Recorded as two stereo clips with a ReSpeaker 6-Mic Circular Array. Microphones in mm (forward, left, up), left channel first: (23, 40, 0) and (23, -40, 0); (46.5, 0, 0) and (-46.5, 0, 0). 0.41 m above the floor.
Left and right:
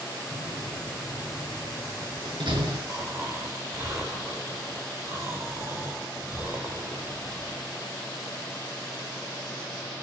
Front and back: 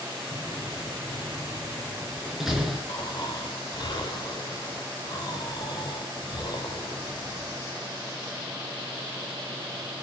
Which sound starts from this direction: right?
A door slam, at 0.3 s.